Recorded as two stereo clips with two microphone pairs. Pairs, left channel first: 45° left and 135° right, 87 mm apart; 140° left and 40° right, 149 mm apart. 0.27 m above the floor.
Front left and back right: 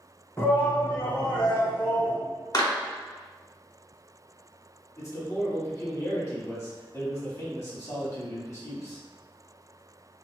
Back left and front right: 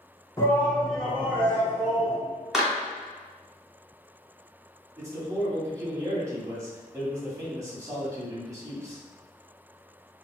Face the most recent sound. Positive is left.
turn(degrees=15)